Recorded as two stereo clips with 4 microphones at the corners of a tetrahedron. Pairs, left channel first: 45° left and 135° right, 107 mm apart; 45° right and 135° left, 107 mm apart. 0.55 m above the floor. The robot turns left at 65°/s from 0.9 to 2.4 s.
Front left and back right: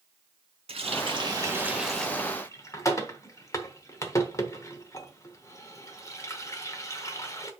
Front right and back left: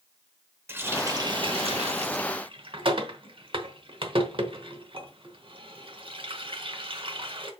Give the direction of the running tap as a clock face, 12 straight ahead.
5 o'clock.